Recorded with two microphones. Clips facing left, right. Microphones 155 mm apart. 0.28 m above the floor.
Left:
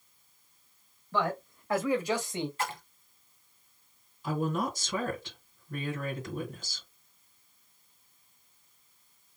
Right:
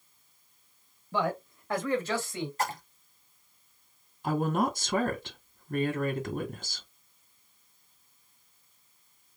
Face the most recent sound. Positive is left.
turn(degrees=-55)  # may be behind; listen again after turning